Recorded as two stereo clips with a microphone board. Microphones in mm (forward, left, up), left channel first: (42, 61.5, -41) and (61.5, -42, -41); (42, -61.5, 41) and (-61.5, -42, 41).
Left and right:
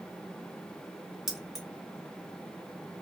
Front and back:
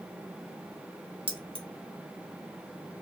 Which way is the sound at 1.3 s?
165° right.